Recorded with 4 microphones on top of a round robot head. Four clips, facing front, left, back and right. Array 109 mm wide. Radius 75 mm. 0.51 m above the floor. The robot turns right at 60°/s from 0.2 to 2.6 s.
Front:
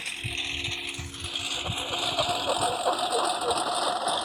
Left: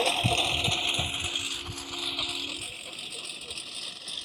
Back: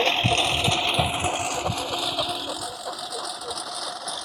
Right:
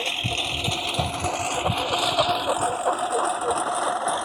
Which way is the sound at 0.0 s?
160° left.